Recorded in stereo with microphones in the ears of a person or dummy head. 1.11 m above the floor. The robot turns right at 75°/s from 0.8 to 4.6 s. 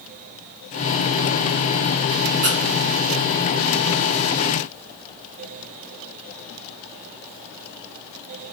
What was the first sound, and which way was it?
A squeak, 40° right (ahead or behind).